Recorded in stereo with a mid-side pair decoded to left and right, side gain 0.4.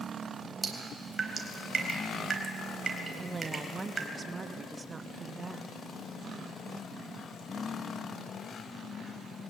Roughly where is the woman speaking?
Ahead right.